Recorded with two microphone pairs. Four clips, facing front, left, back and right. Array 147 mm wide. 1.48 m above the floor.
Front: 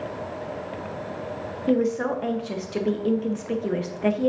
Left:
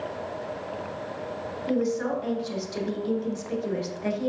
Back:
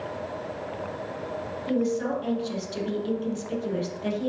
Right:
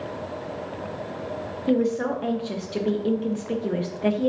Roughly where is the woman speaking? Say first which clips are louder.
Right 4 dB, front 4 dB; ahead right.